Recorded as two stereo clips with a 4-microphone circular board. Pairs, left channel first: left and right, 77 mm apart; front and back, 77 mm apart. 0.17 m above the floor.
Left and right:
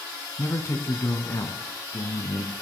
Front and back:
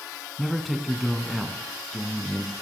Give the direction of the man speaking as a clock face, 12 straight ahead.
9 o'clock.